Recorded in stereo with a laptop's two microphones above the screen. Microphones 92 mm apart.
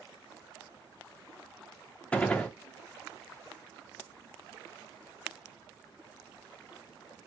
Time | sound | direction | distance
2.1 | a gunshot | 15° left (ahead or behind) | 0.6 m